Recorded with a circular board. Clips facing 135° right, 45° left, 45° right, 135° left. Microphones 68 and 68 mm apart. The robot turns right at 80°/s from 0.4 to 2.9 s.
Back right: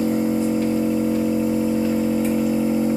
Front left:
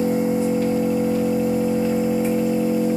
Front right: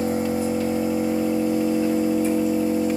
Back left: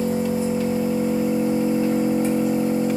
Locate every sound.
0.0 s an engine running: 20° right, 1.3 m; by 3.0 s straight behind, 1.3 m